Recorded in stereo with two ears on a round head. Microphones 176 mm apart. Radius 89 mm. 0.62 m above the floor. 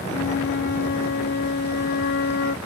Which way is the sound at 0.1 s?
55° left (ahead or behind).